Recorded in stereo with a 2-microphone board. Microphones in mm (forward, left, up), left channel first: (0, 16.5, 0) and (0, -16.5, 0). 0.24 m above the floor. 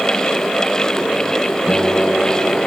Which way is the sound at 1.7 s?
45° right (ahead or behind).